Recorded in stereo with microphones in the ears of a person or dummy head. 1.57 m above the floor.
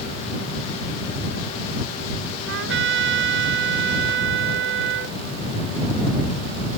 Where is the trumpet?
65° right (ahead or behind).